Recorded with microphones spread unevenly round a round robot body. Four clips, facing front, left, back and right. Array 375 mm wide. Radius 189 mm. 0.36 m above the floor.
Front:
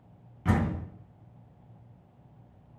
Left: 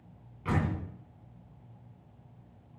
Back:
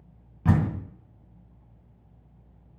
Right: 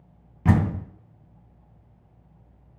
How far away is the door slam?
About 2.5 m.